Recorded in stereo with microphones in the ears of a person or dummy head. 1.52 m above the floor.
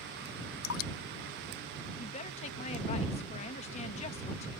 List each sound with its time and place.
0.6 s dripping: 75° left (ahead or behind)
2.0 s a woman speaking: 40° left (ahead or behind)